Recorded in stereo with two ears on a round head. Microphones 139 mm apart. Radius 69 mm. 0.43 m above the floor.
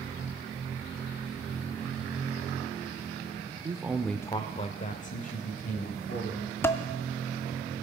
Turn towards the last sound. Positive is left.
turn(degrees=15)  # may be behind; listen again after turning